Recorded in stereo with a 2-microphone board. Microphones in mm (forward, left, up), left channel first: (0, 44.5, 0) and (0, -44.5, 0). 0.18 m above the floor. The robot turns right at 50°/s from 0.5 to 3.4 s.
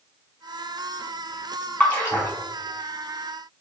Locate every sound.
1.8 s a splash: 15° left (ahead or behind), 1.0 m; by 2.3 s 35° left (ahead or behind), 1.0 m